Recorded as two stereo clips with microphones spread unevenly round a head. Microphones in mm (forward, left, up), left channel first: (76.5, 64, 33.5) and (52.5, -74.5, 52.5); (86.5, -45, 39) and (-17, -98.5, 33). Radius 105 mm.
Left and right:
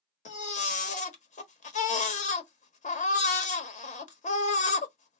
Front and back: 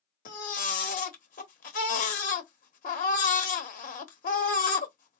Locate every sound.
0.2 s a baby crying: 45° left, 1.2 m